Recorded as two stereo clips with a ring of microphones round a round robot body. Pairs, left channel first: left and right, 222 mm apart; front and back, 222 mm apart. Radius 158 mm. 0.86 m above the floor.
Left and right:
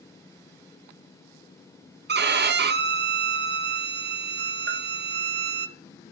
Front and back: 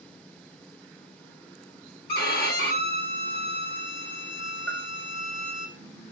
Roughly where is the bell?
Right.